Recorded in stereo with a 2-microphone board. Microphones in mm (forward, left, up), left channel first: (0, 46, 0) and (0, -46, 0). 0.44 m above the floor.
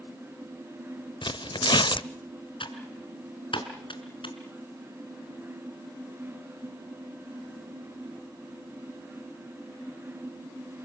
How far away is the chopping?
No chopping in this recording.